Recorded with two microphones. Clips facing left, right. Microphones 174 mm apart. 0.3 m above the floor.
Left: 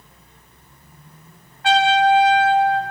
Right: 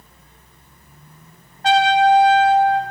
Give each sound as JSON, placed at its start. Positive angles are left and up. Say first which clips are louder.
{"t": 1.6, "sound": "a trumpet", "louder": "right 2 dB", "side_deg": -40, "distance_m": 0.5}